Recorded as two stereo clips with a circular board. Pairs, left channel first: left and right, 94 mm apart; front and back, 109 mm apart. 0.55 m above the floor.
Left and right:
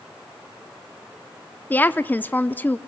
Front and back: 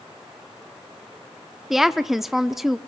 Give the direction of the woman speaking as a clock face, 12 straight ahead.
9 o'clock.